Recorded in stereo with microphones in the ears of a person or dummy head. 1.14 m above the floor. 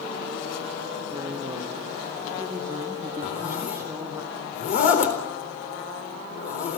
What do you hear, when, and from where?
1.1 s a woman speaking: 15° right (ahead or behind), 2.0 m
3.2 s a zipper: 50° left (ahead or behind), 4 m